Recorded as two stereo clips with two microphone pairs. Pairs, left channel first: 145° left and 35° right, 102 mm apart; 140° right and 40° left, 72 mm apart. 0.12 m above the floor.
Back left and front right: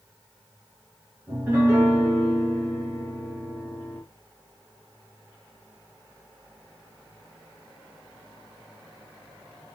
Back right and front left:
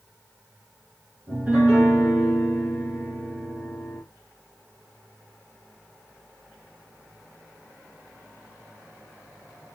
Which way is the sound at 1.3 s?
5° left.